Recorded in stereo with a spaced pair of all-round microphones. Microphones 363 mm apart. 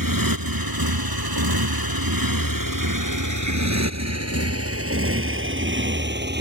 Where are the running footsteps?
I don't hear running footsteps.